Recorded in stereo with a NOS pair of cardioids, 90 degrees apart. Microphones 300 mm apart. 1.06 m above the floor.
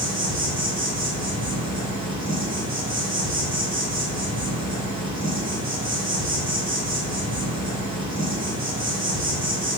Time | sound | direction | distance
0.0 | an insect | 30° right | 1.6 m